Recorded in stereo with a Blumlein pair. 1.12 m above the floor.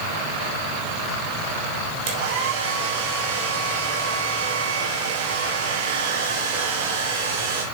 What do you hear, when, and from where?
2.1 s a hair dryer: 50° right, 3.5 m